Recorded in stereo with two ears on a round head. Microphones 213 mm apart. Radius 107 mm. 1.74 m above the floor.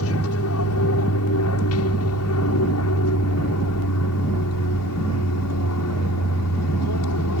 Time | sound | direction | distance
0.0 | an aircraft | 65° left (ahead or behind) | ?